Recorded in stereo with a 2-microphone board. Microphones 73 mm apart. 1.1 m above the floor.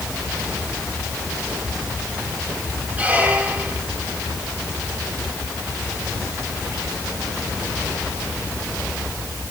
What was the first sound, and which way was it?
A squeak, 20° right (ahead or behind).